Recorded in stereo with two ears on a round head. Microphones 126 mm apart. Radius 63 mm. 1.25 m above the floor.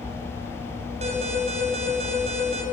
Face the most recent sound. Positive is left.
turn(degrees=-50)  # may be behind; listen again after turning